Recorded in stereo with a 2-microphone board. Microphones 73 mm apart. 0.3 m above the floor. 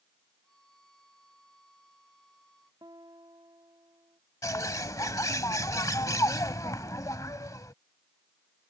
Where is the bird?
55° left (ahead or behind).